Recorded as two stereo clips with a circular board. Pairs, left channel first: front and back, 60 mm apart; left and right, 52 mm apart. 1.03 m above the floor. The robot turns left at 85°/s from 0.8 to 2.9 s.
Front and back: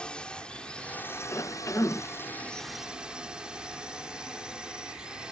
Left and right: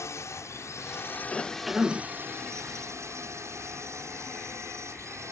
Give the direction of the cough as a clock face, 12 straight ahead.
11 o'clock.